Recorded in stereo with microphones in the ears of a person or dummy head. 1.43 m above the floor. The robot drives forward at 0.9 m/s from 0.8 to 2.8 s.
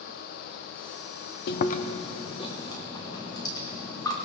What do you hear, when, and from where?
1.5 s chewing: 50° left (ahead or behind), 0.6 m; by 4.1 s 15° left (ahead or behind), 1.6 m